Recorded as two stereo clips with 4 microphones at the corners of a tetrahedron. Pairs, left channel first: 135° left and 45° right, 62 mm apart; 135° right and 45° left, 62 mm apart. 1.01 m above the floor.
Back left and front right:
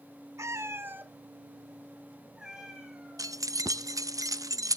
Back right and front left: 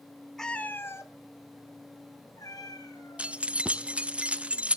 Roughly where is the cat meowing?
Ahead right.